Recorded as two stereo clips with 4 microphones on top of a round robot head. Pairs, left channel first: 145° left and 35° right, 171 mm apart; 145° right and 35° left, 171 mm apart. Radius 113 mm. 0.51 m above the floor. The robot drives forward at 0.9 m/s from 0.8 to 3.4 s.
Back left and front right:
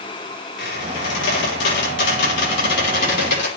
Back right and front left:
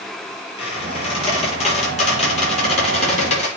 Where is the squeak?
160° left, 7 m; by 3.5 s 165° left, 9.5 m.